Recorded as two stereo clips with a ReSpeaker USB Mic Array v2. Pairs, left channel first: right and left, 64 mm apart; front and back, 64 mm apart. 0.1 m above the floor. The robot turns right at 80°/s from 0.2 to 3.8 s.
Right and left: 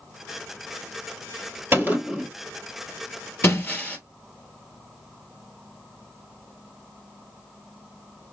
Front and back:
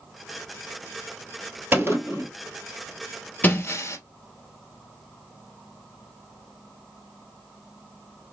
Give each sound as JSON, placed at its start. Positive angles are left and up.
{"t": 1.7, "sound": "a gunshot", "azimuth_deg": 130, "distance_m": 1.5}
{"t": 3.4, "sound": "breaking glass", "azimuth_deg": -55, "distance_m": 1.3}